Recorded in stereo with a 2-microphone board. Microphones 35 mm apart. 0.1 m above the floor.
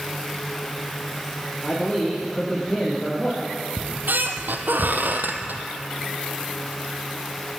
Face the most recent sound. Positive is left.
turn(degrees=-65)  # may be behind; listen again after turning